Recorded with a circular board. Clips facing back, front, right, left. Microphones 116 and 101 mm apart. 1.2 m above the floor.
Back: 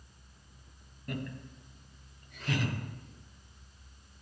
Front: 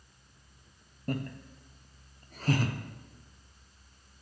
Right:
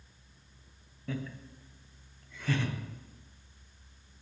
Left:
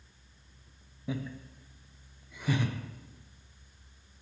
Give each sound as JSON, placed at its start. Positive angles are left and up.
{"t": 1.1, "sound": "laughter", "azimuth_deg": 25, "distance_m": 0.5}